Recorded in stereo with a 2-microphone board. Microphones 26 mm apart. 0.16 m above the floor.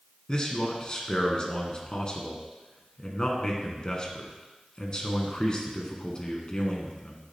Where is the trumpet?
I don't hear a trumpet.